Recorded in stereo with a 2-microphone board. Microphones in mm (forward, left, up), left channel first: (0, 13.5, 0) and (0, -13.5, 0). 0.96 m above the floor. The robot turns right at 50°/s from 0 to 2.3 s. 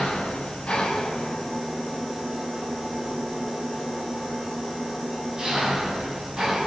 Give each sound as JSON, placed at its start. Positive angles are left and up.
{"t": 0.0, "sound": "an engine running", "azimuth_deg": 100, "distance_m": 7.0}